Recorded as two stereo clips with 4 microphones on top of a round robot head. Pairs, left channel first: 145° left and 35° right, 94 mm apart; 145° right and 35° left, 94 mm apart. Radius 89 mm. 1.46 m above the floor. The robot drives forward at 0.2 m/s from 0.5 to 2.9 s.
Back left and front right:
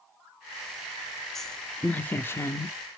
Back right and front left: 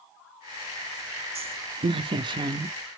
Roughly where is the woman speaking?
Ahead left.